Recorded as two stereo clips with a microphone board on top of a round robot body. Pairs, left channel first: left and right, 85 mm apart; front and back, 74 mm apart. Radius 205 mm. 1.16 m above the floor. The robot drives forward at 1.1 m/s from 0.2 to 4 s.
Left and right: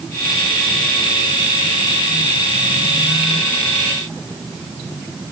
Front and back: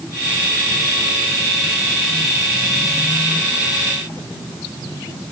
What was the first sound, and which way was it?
Only background noise.